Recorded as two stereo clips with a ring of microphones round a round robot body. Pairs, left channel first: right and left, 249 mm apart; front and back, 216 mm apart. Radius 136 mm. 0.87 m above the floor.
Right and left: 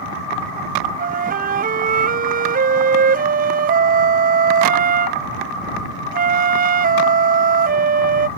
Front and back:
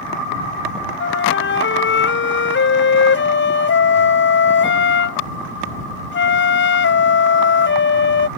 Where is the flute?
30° left.